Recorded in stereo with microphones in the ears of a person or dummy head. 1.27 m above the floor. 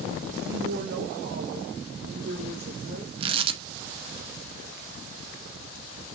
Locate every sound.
0.5 s a woman speaking: 55° right (ahead or behind), 1.3 m; by 3.1 s 40° right (ahead or behind), 3.5 m
3.2 s tearing paper: 25° right (ahead or behind), 1.1 m